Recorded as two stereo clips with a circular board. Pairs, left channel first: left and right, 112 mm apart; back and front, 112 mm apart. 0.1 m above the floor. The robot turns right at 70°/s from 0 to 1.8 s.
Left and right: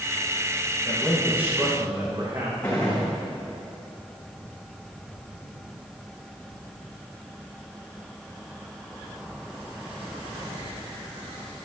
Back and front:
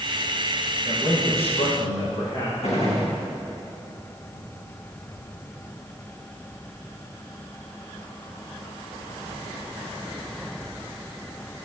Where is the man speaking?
160° left, 4.5 m; by 2.5 s 135° right, 4.5 m.